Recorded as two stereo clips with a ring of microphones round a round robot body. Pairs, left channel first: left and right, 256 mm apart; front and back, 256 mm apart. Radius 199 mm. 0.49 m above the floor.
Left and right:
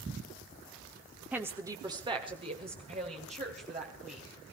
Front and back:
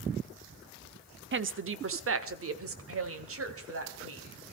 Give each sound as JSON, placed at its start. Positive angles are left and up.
{"t": 1.3, "sound": "a woman speaking", "azimuth_deg": -170, "distance_m": 1.1}